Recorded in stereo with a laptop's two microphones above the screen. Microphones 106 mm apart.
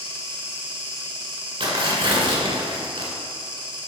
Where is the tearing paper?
55° right (ahead or behind), 1.8 m.